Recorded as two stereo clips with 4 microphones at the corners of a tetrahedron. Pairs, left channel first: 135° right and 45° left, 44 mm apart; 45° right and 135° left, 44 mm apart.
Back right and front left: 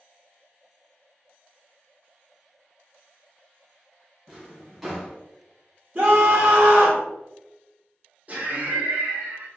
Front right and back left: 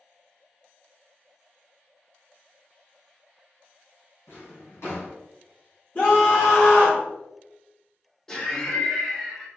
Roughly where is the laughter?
Ahead left.